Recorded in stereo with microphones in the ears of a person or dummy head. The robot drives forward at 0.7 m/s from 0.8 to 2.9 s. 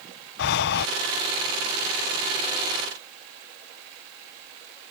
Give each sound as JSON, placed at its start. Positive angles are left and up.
{"t": 0.4, "sound": "breathing", "side_deg": 55}